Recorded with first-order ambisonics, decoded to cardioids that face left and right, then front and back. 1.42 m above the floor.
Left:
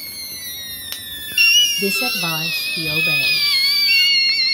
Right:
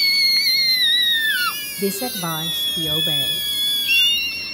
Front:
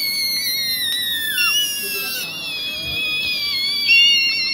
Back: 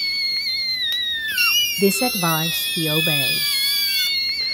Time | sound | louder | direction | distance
1.8 | a woman speaking | left 5 dB, back 5 dB | straight behind | 1.2 m